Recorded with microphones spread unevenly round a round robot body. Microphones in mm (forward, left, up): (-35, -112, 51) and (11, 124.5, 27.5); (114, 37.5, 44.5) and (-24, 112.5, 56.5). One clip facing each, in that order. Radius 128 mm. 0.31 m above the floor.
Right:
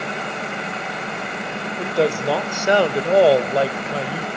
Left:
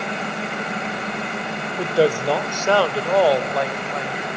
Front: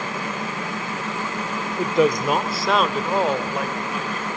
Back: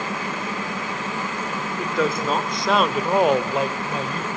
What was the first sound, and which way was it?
A woman speaking, 15° left.